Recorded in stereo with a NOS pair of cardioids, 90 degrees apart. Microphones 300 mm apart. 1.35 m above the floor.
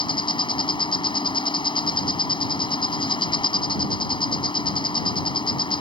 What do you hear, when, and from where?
0.0 s an insect: 15° left